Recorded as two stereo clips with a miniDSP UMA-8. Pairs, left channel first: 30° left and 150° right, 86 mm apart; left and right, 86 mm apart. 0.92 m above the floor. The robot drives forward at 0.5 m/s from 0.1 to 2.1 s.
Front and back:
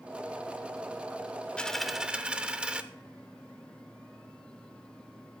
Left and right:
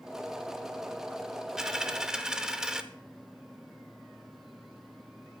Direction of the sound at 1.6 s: 20° right.